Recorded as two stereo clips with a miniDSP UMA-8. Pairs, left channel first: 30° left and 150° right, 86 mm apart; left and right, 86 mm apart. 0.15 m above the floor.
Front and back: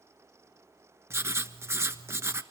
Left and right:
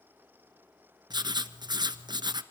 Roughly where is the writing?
Right.